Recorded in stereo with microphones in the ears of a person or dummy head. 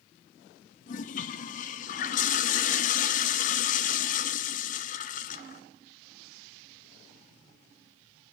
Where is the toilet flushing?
35° left (ahead or behind), 0.7 m.